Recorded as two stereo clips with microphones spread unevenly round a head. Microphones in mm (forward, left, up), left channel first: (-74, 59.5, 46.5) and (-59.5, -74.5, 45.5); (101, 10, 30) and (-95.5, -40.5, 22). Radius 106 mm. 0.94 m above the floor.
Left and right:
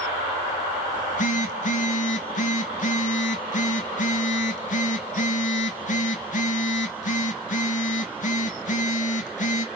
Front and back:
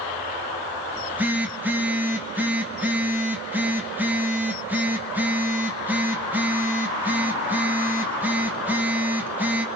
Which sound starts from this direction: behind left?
A phone buzzing, at 0.9 s.